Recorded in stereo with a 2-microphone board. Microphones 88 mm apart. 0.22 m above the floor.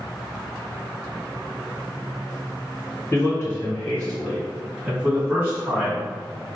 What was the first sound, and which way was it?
A man speaking, 30° left (ahead or behind).